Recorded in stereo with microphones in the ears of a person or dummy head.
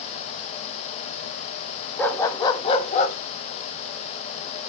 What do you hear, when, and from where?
2.0 s a dog barking: 10° left (ahead or behind), 1.1 m; by 3.2 s 45° left (ahead or behind), 1.1 m